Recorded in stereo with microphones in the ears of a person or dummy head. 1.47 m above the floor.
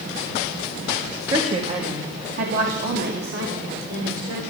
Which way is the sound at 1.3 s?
25° right (ahead or behind).